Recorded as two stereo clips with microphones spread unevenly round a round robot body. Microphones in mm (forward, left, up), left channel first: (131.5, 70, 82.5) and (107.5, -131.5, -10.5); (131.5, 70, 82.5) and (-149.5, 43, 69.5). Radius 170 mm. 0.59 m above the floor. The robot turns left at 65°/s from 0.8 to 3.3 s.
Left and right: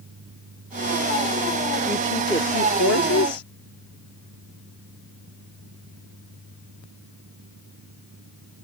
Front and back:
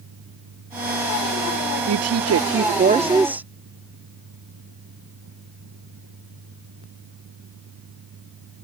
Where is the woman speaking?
165° right; by 3.5 s 105° left.